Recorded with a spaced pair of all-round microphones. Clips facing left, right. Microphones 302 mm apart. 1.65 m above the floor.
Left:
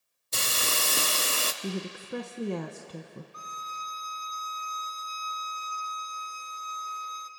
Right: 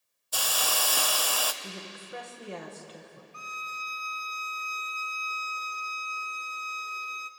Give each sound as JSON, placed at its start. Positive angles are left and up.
{"t": 0.3, "sound": "a hiss", "side_deg": 30, "distance_m": 0.7}
{"t": 1.6, "sound": "a woman speaking", "side_deg": 55, "distance_m": 1.0}
{"t": 3.3, "sound": "a violin", "side_deg": -35, "distance_m": 0.6}